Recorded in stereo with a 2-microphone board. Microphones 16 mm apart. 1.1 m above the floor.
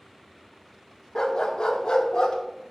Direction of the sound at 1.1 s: 45° left (ahead or behind).